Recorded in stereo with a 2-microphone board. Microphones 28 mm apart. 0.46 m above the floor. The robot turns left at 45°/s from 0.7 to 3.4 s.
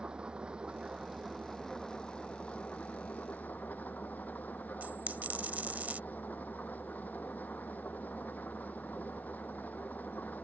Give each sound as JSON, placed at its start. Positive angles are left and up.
{"t": 0.0, "sound": "an engine running", "azimuth_deg": -145}
{"t": 4.8, "sound": "a dropped coin", "side_deg": -80}